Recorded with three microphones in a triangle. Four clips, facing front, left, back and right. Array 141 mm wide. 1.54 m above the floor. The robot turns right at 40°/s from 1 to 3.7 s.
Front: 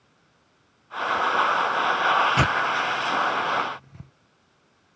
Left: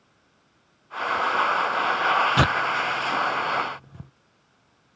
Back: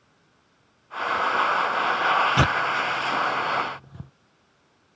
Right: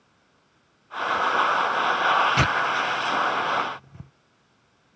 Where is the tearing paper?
105° left; by 4.1 s 160° left.